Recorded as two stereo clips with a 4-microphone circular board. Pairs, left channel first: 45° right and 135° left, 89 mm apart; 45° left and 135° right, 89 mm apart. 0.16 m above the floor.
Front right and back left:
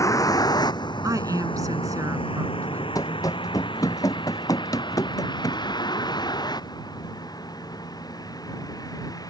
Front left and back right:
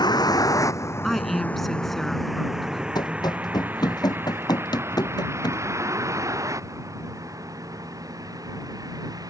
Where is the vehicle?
5° left; by 9.3 s 90° right.